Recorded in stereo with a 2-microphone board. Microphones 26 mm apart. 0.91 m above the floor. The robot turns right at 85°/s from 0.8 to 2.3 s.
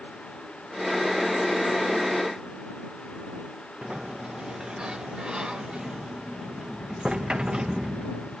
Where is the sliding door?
35° right (ahead or behind).